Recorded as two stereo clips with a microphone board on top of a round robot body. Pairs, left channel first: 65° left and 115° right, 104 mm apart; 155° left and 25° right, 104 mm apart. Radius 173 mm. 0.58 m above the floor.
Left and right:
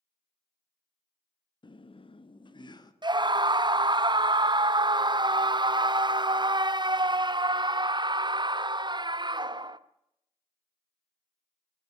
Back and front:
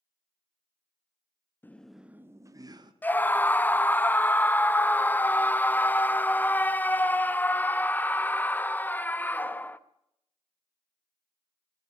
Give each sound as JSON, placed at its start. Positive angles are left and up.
{"t": 1.6, "sound": "laughter", "azimuth_deg": 90, "distance_m": 0.8}
{"t": 3.0, "sound": "a scream", "azimuth_deg": -135, "distance_m": 0.9}